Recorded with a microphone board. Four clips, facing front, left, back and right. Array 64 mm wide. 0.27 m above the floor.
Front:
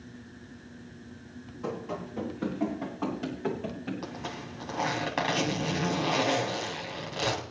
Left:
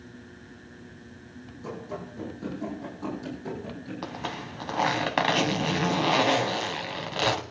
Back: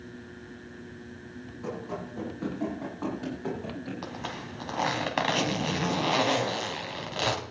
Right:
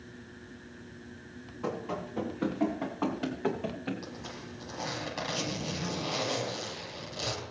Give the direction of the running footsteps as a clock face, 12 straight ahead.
3 o'clock.